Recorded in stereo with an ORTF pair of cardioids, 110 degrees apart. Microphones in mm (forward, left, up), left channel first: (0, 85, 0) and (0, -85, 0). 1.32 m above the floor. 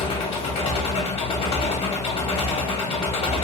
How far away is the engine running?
About 0.9 m.